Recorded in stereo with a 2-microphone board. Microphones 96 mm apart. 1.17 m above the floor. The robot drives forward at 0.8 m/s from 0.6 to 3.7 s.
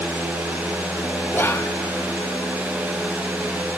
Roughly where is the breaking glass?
No breaking glass in this recording.